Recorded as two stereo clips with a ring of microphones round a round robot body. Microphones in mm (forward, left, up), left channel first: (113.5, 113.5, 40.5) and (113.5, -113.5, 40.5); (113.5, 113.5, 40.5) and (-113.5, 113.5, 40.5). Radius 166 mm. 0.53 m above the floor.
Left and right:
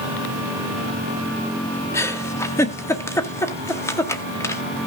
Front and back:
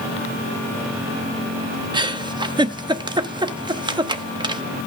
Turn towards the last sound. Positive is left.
turn(degrees=145)